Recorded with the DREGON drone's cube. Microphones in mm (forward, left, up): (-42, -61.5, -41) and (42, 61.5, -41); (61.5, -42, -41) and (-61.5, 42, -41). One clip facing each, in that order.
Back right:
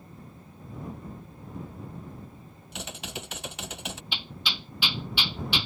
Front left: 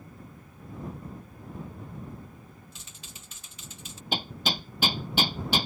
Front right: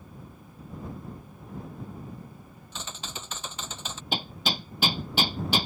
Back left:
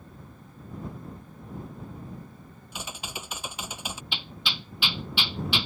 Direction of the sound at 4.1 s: 10° left.